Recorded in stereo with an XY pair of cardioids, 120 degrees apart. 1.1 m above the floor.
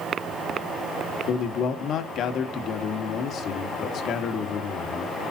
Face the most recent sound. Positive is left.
turn(degrees=60)